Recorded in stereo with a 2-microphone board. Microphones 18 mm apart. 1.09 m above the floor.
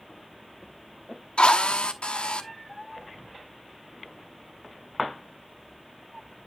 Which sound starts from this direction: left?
A drill, at 1.4 s.